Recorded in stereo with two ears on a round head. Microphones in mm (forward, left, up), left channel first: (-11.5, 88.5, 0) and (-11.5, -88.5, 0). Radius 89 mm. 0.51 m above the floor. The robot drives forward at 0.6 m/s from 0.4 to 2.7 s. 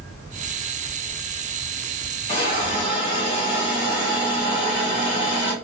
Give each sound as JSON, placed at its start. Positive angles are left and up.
{"t": 2.3, "sound": "a hiss", "side_deg": 25, "distance_m": 1.6}